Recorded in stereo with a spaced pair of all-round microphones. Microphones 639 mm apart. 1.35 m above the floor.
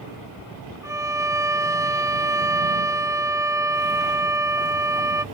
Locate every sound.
0.8 s a violin: 5° right (ahead or behind)